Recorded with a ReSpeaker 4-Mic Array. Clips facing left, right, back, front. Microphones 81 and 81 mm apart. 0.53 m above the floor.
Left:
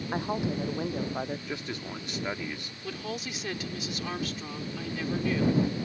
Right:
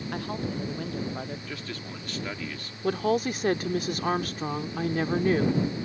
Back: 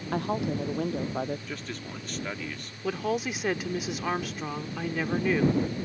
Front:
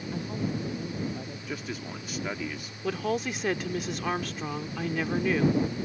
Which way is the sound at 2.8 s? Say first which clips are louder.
Right 12 dB, even; 95° right.